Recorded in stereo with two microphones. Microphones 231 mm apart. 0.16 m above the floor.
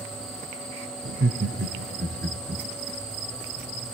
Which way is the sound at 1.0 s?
60° right (ahead or behind).